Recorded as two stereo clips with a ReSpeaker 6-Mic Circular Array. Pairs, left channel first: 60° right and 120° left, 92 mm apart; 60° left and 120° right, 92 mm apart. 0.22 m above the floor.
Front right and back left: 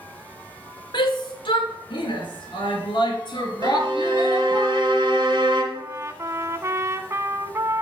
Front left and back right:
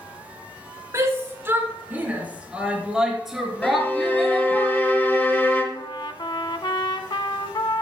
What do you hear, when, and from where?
0.9 s a shout: 70° right, 2.5 m; by 4.6 s 20° right, 4 m
3.6 s a violin: 125° left, 2 m
5.7 s a trumpet: 70° left, 0.7 m